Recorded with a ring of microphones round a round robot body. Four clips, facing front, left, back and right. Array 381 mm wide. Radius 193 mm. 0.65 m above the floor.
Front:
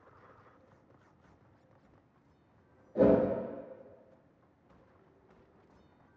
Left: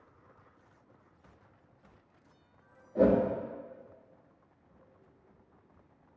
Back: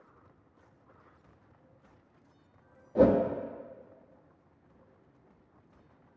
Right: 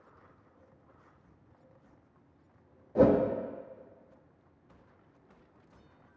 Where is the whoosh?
130° right, 0.5 m.